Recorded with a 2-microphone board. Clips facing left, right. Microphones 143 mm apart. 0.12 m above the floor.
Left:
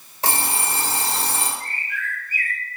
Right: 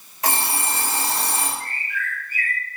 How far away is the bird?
About 1.1 m.